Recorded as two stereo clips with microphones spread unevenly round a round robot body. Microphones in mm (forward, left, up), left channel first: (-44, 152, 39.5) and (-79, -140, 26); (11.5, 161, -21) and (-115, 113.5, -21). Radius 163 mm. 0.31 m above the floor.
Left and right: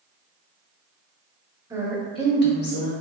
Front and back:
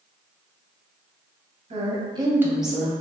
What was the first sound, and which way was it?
A woman speaking, 170° right.